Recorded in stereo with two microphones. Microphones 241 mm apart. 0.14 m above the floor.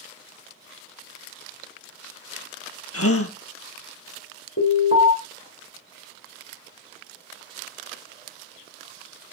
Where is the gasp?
70° left (ahead or behind), 0.9 m.